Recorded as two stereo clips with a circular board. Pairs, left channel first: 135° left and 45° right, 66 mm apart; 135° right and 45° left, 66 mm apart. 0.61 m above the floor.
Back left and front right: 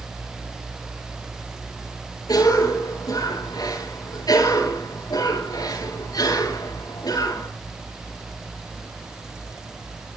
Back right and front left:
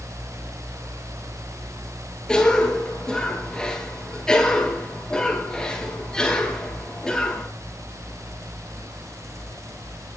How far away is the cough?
About 9 m.